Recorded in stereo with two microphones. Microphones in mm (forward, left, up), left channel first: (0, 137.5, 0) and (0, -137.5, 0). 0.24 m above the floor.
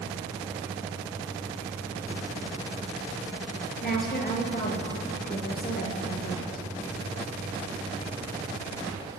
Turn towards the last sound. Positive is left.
turn(degrees=35)  # may be behind; listen again after turning